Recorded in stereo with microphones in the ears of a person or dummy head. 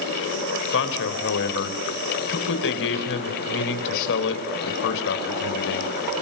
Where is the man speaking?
65° left (ahead or behind), 4.5 m.